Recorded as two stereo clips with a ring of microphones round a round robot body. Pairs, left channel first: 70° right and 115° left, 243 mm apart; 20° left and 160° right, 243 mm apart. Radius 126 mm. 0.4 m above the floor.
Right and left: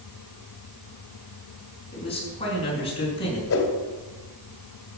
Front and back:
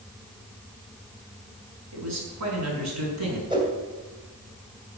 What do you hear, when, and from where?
1.9 s a man speaking: 135° right, 5 m
3.5 s a whoosh: 90° right, 2 m